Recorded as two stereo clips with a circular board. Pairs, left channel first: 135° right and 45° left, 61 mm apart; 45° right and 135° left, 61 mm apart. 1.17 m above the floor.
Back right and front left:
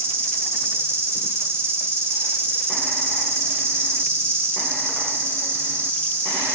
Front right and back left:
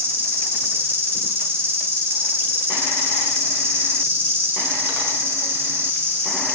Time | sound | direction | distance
0.0 | an insect | 90° left | 2.5 m